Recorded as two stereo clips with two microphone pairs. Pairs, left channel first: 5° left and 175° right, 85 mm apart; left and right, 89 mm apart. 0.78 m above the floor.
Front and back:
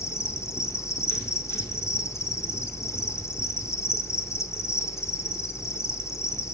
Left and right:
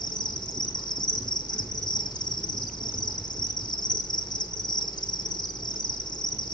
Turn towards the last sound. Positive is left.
turn(degrees=60)